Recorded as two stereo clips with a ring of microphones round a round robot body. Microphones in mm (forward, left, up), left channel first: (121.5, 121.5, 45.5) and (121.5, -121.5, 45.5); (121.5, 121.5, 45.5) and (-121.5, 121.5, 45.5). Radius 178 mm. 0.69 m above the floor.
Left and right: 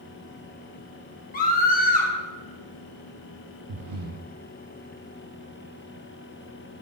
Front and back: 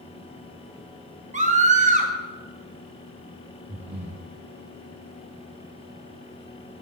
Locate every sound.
1.3 s a scream: 130° left, 1.3 m
3.7 s breathing: 105° right, 0.5 m